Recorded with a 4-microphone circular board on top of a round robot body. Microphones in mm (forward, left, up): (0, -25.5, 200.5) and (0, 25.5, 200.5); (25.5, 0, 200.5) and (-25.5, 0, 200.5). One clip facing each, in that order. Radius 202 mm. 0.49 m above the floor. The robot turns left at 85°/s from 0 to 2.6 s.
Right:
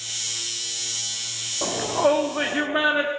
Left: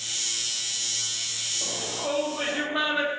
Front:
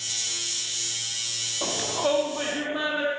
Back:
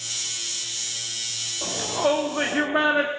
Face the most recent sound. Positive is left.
turn(degrees=-150)